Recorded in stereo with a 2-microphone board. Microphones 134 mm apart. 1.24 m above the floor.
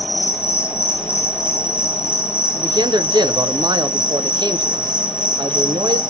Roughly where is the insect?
Centre.